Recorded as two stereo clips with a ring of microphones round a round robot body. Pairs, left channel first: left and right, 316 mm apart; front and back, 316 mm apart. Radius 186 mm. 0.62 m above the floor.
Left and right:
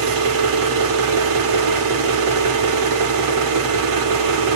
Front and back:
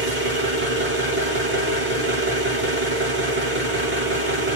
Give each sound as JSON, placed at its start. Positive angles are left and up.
{"t": 0.0, "sound": "an engine running", "azimuth_deg": -115, "distance_m": 1.1}